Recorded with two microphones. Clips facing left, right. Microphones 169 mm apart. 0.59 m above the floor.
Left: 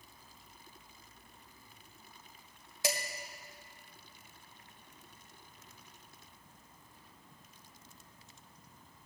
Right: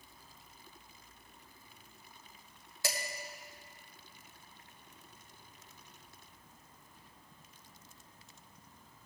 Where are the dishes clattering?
20° left (ahead or behind), 1.7 m.